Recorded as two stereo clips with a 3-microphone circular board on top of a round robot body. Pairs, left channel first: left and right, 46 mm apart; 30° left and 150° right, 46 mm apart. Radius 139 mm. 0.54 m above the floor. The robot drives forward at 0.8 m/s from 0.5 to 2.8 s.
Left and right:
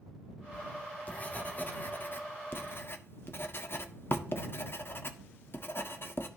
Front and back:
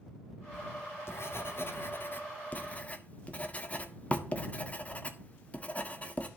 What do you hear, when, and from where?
0.5 s writing: 35° left, 2.5 m; by 6.3 s 85° left, 1.7 m